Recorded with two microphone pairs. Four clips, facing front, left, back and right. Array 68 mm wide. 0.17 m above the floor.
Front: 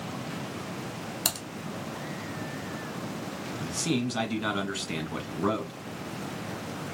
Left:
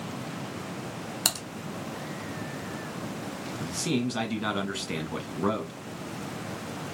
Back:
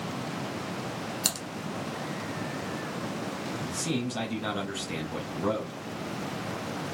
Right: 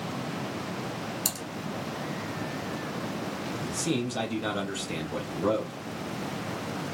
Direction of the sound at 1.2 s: 80° left.